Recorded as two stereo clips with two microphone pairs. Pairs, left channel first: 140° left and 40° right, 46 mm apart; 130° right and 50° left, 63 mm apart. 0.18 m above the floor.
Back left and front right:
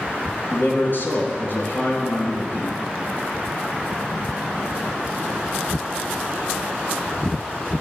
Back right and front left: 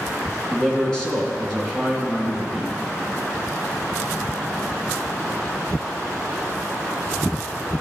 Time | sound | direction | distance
0.5 | a man speaking | 150° left | 2.5 m